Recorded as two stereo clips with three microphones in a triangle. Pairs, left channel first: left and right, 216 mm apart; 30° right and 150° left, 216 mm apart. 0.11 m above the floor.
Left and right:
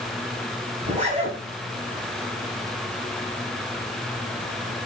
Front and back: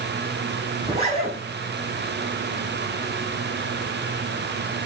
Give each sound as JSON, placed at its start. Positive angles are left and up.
{"t": 0.8, "sound": "a zipper", "azimuth_deg": -145, "distance_m": 4.0}